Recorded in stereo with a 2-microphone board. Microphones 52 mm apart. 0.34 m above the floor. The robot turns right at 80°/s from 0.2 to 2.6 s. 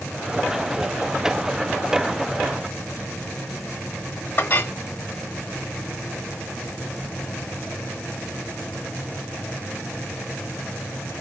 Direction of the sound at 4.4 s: 40° left (ahead or behind).